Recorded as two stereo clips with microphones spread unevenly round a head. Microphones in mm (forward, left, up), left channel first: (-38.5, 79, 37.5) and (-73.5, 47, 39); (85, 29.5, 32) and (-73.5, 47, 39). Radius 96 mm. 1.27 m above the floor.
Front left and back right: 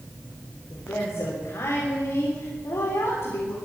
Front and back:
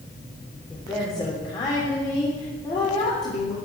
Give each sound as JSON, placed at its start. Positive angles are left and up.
{"t": 0.7, "sound": "a woman speaking", "azimuth_deg": 60, "distance_m": 3.0}